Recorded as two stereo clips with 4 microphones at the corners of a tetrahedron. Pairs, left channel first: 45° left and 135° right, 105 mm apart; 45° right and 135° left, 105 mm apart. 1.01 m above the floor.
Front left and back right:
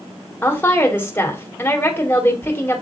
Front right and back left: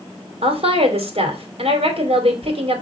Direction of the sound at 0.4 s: 115° left.